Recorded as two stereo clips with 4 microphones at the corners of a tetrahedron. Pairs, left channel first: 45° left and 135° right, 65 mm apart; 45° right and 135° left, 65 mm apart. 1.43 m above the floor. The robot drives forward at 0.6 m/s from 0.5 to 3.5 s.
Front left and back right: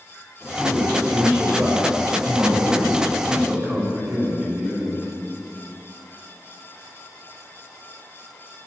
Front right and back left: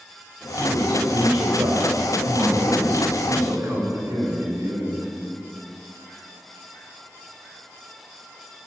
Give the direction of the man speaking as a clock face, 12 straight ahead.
7 o'clock.